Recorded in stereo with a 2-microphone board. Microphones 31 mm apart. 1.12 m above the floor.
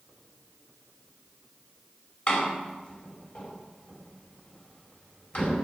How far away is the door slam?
About 4 m.